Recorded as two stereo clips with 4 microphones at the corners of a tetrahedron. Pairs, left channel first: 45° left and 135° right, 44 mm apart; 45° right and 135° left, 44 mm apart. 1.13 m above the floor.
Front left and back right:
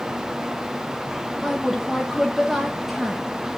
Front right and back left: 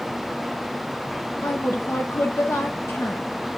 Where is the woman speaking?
50° right, 1.1 m.